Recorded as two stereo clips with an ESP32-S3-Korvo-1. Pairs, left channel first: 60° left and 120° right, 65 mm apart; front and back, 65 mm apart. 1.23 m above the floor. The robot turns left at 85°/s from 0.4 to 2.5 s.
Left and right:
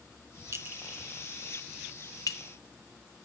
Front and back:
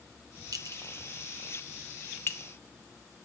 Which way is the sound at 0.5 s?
160° right.